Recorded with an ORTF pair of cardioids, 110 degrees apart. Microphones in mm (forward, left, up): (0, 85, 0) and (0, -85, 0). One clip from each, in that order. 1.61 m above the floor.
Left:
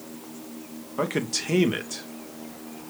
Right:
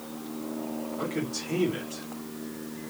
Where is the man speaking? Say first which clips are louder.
Left 8 dB; 65° left, 2.5 m.